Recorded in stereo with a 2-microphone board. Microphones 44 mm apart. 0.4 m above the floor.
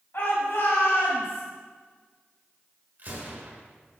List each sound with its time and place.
0.1 s a shout: 60° left (ahead or behind), 2.5 m; by 1.4 s 70° left (ahead or behind), 2.5 m
3.0 s a gunshot: 45° right (ahead or behind), 1.6 m